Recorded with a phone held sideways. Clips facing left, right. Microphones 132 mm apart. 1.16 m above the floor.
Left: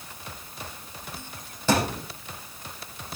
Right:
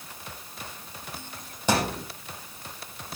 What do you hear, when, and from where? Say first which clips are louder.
1.7 s a thud: left 2 dB; 15° right (ahead or behind), 6 m